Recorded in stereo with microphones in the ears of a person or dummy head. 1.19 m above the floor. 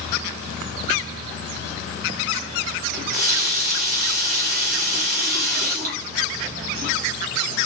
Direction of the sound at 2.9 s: 45° right (ahead or behind).